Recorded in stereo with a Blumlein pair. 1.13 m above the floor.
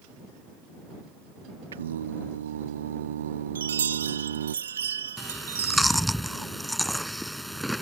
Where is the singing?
65° right.